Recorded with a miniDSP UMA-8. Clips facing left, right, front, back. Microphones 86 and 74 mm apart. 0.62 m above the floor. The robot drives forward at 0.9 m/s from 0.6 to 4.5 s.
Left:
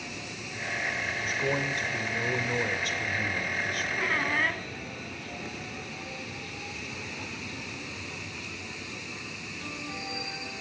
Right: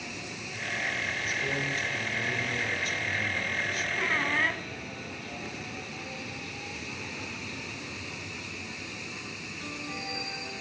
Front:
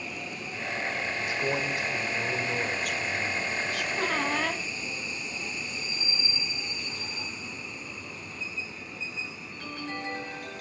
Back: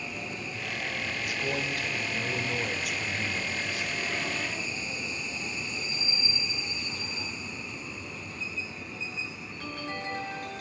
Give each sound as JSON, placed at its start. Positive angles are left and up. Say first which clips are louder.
{"t": 1.2, "sound": "a man speaking", "louder": "left 6 dB, front 3 dB", "azimuth_deg": 55, "distance_m": 2.5}
{"t": 4.0, "sound": "a squeak", "louder": "even, front 5 dB", "azimuth_deg": 0, "distance_m": 2.0}